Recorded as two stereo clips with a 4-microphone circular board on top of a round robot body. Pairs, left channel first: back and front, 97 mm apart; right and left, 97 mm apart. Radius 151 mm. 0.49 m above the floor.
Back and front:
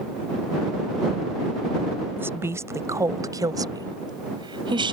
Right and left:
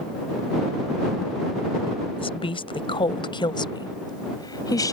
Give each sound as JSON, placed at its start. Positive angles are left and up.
{"t": 2.2, "sound": "a woman speaking", "azimuth_deg": -65}